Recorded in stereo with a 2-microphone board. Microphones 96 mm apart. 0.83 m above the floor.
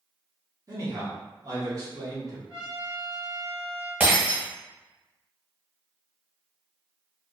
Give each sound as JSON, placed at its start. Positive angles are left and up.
{"t": 0.7, "sound": "a man speaking", "side_deg": -40, "distance_m": 1.0}
{"t": 2.5, "sound": "a trumpet", "side_deg": -10, "distance_m": 1.1}
{"t": 4.0, "sound": "breaking glass", "side_deg": -20, "distance_m": 1.1}